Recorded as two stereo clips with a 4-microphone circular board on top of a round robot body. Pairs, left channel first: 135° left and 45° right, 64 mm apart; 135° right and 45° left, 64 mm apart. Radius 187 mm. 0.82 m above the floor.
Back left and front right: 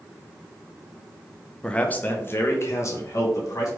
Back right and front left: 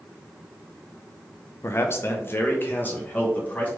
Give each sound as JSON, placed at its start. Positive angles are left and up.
{"t": 1.6, "sound": "a man speaking", "azimuth_deg": -155, "distance_m": 0.9}